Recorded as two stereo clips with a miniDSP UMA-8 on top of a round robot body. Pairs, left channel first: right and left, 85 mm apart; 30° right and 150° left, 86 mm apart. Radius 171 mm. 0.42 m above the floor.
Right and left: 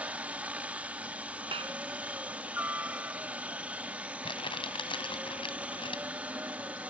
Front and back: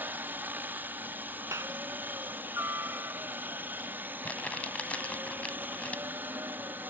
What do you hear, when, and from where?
0.0 s a helicopter: 135° left
1.5 s a clap: 95° left
4.2 s crumpling: 105° right